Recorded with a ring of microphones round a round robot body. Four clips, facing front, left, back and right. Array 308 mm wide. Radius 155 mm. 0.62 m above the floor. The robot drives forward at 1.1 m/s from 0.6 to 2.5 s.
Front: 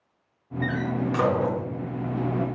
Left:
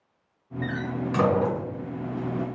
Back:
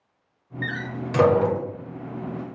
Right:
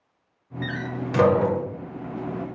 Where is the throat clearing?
I don't hear throat clearing.